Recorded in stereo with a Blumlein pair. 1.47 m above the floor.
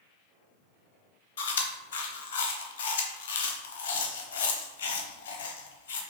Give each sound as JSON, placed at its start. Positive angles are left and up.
{"t": 1.4, "sound": "chewing", "azimuth_deg": 55, "distance_m": 0.8}